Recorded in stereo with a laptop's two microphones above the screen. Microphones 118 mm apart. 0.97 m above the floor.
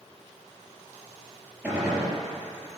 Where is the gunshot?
10° right (ahead or behind), 4 m.